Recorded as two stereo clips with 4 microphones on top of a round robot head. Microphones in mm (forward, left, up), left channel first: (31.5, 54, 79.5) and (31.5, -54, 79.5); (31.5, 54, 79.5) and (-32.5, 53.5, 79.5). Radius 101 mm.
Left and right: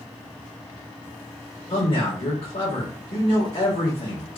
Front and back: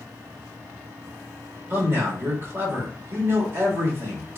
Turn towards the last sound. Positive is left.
turn(degrees=130)